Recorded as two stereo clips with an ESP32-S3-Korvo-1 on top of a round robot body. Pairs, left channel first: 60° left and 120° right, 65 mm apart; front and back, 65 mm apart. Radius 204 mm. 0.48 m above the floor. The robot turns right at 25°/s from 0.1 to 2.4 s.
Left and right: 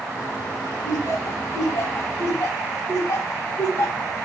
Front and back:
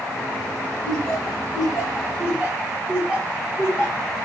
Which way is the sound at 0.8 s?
70° left.